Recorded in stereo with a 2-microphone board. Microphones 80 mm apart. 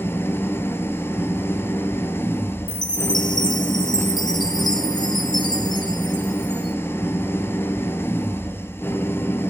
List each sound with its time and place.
0.0 s an engine running: 30° left (ahead or behind), 1.2 m
2.7 s a chime: 60° left (ahead or behind), 1.2 m